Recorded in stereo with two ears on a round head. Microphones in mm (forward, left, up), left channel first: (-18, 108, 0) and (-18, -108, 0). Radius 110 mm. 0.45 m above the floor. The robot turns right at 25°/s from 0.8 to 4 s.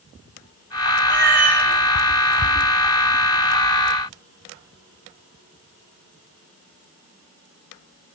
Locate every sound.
1.1 s a cat meowing: 20° right (ahead or behind), 7 m; by 1.6 s 5° right (ahead or behind), 7 m